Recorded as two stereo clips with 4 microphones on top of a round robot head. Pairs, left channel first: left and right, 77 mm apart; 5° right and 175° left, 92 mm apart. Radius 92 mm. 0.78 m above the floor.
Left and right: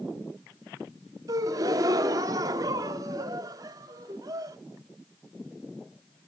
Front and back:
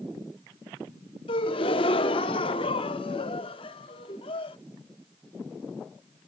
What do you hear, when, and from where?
1.3 s a gasp: 40° right, 0.8 m